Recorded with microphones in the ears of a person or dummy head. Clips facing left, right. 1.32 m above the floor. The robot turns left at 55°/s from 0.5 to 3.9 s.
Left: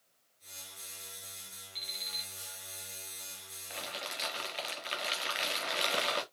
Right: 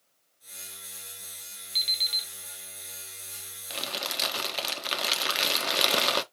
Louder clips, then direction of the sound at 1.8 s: Right 3 dB; 55° right (ahead or behind).